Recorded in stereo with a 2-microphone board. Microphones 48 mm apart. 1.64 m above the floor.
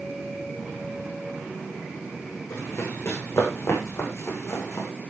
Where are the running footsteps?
70° left (ahead or behind), 8.5 m.